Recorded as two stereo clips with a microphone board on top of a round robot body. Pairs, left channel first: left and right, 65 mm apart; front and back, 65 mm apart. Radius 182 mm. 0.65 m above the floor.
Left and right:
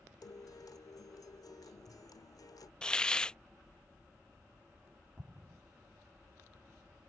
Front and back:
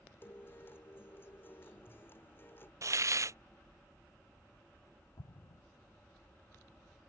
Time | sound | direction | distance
0.2 | a guitar | 60° left | ?
2.8 | a hiss | 165° left | ?
5.2 | an explosion | 20° right | ?